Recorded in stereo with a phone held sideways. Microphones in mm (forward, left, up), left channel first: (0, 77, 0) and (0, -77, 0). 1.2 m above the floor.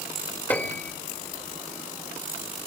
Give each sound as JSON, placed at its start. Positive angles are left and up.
{"t": 0.5, "sound": "a piano", "side_deg": 10, "distance_m": 2.0}